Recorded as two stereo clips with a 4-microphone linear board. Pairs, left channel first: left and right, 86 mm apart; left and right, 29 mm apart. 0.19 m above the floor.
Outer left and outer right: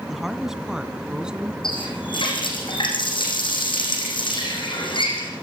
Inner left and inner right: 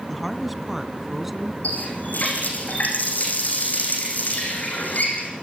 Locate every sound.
0.1 s a woman speaking: 5° right (ahead or behind), 1.4 m; by 1.5 s 10° right (ahead or behind), 2.0 m
1.6 s a running tap: 70° left (ahead or behind), 6.5 m